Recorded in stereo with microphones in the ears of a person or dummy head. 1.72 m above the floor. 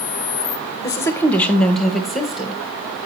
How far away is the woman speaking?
About 0.7 m.